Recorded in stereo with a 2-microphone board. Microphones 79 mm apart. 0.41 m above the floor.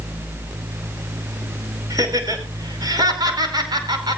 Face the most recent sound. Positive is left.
turn(degrees=-65)  # may be behind; listen again after turning